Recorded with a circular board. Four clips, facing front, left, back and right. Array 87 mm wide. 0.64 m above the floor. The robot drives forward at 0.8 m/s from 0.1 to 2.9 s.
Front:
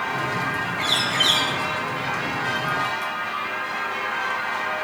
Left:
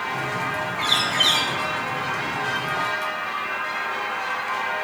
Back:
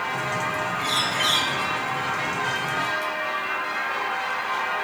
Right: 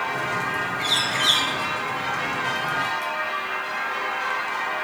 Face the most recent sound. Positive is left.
turn(degrees=95)